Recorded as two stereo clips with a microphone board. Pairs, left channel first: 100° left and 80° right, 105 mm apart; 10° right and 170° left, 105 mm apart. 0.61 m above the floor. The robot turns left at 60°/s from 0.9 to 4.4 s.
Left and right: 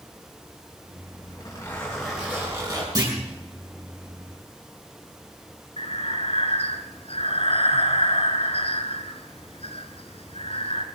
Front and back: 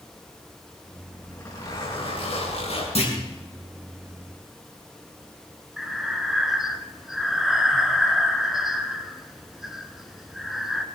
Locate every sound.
1.2 s a zipper: 65° left, 8 m; by 2.9 s 35° right, 8 m
3.0 s a clunk: 30° right, 5.5 m; by 3.2 s 40° right, 5.5 m
5.8 s breathing: 85° left, 1.5 m